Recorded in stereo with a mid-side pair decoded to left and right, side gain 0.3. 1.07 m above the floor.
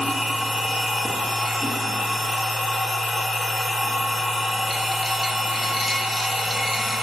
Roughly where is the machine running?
Ahead left.